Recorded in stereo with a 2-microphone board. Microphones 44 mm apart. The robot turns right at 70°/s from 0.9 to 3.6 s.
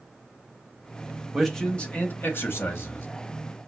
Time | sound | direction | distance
1.3 | a man speaking | 5° right | 1.6 m